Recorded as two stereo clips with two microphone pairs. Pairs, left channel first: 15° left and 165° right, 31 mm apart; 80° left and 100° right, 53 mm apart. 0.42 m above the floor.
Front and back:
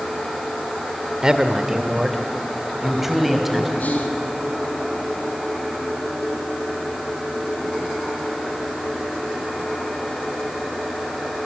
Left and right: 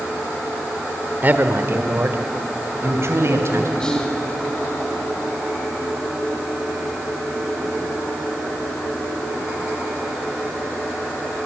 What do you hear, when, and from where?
1.2 s a man speaking: 115° right, 1.5 m; by 3.7 s 80° right, 3.5 m
3.8 s whispering: straight ahead, 4 m